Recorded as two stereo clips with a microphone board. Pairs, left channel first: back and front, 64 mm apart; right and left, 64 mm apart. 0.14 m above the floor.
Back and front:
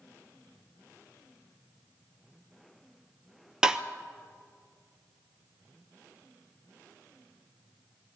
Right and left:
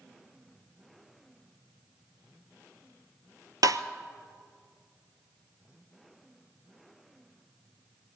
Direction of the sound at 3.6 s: 80° left.